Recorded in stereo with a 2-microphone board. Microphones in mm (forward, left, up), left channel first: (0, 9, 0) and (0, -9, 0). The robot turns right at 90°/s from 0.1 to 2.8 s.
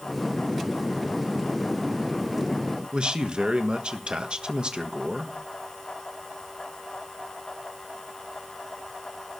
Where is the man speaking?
65° right (ahead or behind), 1.4 m.